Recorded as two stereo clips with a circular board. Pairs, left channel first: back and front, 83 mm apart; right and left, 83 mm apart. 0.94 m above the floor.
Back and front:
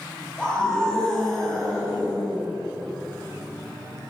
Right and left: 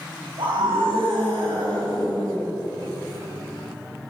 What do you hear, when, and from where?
0.4 s a scream: 100° left, 7 m; by 2.5 s 90° left, 7.5 m